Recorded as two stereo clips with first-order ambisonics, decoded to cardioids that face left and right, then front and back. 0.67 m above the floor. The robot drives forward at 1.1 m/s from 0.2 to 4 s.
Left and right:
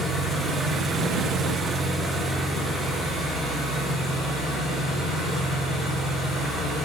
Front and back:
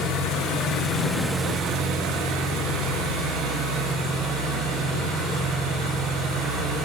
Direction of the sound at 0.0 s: 15° right.